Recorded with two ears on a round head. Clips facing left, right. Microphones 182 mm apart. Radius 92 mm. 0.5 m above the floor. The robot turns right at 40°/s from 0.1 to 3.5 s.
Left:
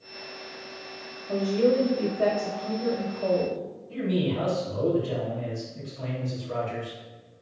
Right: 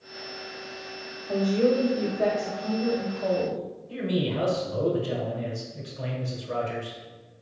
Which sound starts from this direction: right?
A man speaking, at 3.9 s.